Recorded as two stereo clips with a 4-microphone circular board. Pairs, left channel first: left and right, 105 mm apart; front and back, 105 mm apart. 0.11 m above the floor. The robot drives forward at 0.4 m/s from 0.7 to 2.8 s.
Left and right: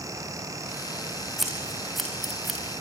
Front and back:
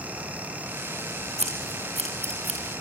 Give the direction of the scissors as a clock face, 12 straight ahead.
6 o'clock.